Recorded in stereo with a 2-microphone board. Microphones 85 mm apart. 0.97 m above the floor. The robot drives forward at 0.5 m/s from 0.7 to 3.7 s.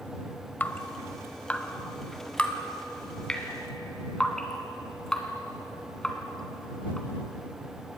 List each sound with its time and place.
0.6 s dripping: 20° left (ahead or behind), 1.1 m; by 7.1 s 10° left (ahead or behind), 2.5 m